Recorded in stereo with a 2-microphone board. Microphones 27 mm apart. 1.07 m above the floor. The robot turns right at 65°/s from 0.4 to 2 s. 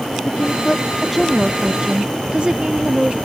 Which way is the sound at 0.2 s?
125° left.